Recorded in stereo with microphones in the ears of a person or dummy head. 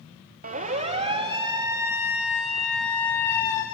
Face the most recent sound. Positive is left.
turn(degrees=15)  # may be behind; listen again after turning